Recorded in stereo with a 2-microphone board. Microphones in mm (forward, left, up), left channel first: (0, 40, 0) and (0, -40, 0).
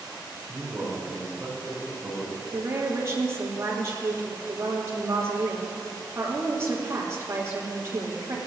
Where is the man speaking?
10° right (ahead or behind), 4 m; by 2.4 s 15° right (ahead or behind), 6 m.